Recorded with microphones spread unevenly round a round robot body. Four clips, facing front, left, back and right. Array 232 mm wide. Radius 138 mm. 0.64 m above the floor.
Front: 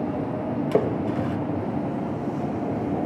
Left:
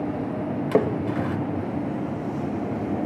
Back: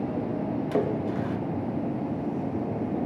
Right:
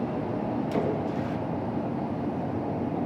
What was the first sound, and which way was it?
A splash, 50° left.